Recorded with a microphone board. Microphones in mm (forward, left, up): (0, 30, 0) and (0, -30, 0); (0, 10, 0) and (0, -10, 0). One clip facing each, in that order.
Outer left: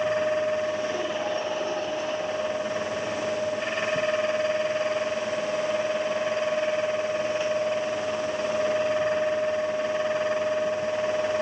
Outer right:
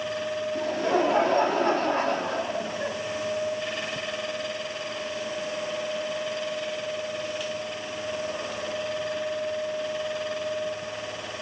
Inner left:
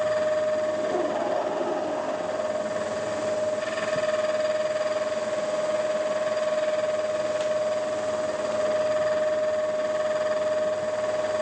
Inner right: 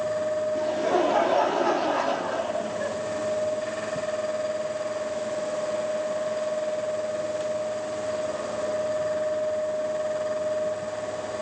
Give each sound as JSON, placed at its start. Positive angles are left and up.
{"t": 0.6, "sound": "laughter", "side_deg": -60, "distance_m": 3.0}